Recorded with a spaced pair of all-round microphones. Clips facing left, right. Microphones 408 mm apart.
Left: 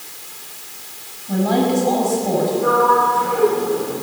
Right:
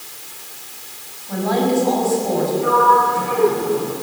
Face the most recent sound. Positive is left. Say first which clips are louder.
# left 1 dB
turn(degrees=-40)  # may be behind; listen again after turning